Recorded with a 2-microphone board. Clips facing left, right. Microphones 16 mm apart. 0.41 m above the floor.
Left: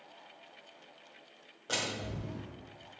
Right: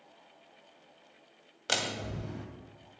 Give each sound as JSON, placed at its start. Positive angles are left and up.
{"t": 1.7, "sound": "a door slam", "side_deg": -60, "distance_m": 2.0}